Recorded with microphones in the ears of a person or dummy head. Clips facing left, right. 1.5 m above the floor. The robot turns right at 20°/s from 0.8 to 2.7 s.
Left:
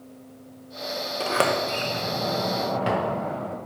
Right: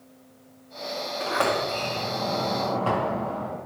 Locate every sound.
1.2 s a sliding door: 130° left, 0.9 m; by 3.6 s 160° left, 0.9 m